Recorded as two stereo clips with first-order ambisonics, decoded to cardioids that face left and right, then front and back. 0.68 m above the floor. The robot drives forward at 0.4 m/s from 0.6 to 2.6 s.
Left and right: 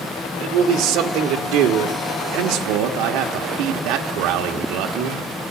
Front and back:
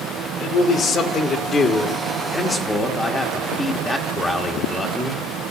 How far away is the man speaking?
About 1.9 m.